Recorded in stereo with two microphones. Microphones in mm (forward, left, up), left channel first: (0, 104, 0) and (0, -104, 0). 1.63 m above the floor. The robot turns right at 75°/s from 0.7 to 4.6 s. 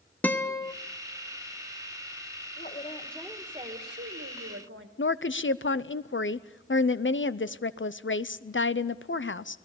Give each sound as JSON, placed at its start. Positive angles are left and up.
{"t": 0.2, "sound": "a guitar", "side_deg": 10, "distance_m": 1.1}
{"t": 2.6, "sound": "a woman speaking", "azimuth_deg": 135, "distance_m": 1.9}
{"t": 5.0, "sound": "a woman speaking", "side_deg": 65, "distance_m": 0.6}